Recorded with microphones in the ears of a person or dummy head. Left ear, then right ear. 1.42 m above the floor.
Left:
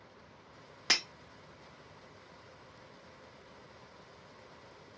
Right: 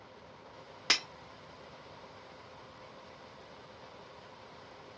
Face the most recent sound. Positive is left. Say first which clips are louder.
# even
turn(degrees=-10)  # may be behind; listen again after turning